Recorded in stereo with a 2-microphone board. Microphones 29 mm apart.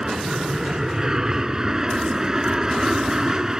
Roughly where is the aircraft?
Right.